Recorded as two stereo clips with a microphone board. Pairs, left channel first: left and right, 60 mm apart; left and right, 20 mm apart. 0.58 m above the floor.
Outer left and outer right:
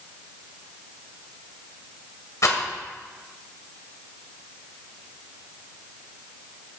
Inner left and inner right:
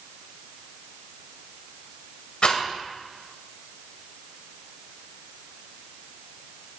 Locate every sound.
2.4 s a rattle: 65° left (ahead or behind), 1.8 m